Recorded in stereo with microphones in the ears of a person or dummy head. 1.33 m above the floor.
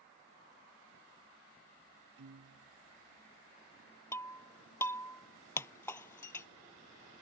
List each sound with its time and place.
2.2 s a piano: 85° right
4.1 s breaking glass: 10° left (ahead or behind)